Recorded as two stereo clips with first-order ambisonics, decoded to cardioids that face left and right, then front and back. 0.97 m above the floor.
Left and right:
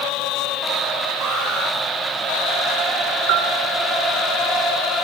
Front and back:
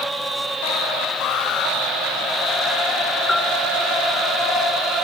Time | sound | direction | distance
1.2 | an alarm | 35° right | 9 m
3.3 | a bell | 80° right | 3.5 m